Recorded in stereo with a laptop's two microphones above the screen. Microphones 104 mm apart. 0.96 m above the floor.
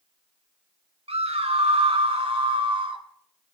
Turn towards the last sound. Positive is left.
turn(degrees=-55)  # may be behind; listen again after turning